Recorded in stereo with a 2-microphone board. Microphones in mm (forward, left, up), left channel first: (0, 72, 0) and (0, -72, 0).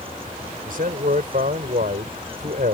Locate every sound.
0.7 s a man speaking: 75° right (ahead or behind)